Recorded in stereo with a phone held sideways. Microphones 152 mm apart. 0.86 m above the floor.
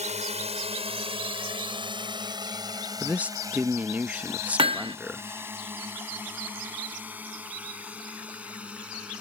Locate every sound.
0.0 s a drone: 50° right (ahead or behind); by 9.2 s 10° right (ahead or behind)
3.0 s a man speaking: 10° right (ahead or behind)
4.6 s hammering: 35° right (ahead or behind)